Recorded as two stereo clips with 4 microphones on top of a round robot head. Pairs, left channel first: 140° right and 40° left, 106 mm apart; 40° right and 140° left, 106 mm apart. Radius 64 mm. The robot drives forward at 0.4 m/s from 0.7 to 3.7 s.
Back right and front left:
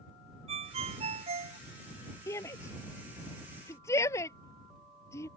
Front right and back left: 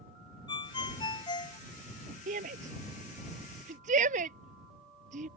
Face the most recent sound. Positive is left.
turn(degrees=155)